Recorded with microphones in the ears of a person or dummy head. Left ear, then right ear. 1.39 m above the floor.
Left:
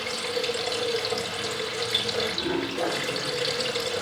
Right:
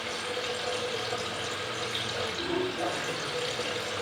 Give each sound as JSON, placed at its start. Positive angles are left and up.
{"t": 0.0, "sound": "running water", "side_deg": 25, "distance_m": 3.5}